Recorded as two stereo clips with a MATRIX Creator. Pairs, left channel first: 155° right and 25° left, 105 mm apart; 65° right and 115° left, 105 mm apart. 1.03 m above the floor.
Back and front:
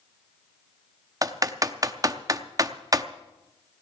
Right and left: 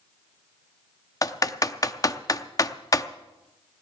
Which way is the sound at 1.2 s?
25° right.